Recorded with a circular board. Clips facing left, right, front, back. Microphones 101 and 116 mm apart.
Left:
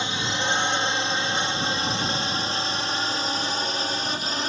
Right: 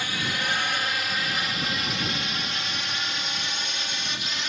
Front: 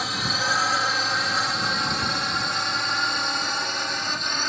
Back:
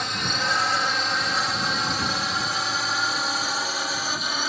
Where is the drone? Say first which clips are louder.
Left 3 dB, even; 85° left; by 4.5 s 100° left.